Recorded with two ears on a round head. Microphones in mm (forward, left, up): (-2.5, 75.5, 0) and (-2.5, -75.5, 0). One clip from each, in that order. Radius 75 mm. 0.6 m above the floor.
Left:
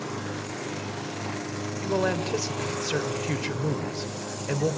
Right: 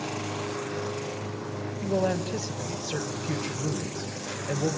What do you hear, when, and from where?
1.8 s a man speaking: 55° left (ahead or behind), 3 m